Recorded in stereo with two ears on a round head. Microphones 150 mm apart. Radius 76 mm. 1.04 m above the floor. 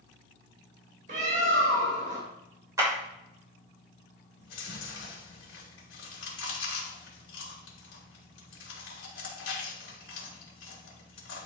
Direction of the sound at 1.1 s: 50° right (ahead or behind).